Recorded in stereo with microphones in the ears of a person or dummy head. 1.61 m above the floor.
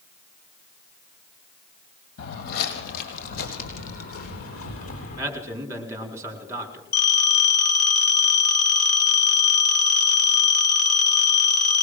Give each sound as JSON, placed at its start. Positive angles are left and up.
{"t": 2.2, "sound": "footsteps", "side_deg": 55, "distance_m": 3.0}
{"t": 5.2, "sound": "a man speaking", "side_deg": -10, "distance_m": 4.5}
{"t": 6.9, "sound": "a phone ringing", "side_deg": 65, "distance_m": 6.5}